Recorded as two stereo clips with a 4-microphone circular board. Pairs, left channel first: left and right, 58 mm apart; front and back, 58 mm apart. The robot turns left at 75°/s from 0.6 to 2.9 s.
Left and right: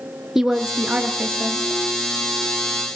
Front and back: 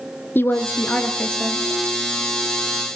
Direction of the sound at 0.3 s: 10° right.